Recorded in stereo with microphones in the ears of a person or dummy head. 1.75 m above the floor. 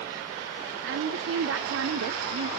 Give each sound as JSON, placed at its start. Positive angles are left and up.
{"t": 0.8, "sound": "a woman speaking", "side_deg": -75, "distance_m": 0.6}